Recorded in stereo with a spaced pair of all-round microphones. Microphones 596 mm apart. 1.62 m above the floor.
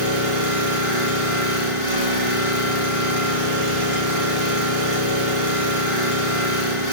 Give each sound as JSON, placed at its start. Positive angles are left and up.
{"t": 0.0, "sound": "an engine running", "side_deg": 55, "distance_m": 2.5}